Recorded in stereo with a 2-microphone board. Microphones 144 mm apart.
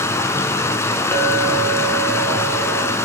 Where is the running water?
20° left (ahead or behind), 0.9 m.